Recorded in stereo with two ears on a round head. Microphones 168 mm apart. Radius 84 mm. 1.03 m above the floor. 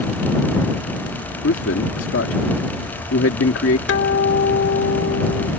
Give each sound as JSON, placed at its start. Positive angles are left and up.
{"t": 1.4, "sound": "a man speaking", "side_deg": 75}
{"t": 3.9, "sound": "a guitar", "side_deg": 65}